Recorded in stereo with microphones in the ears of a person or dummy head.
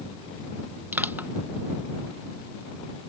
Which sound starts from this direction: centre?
Crushing, at 0.9 s.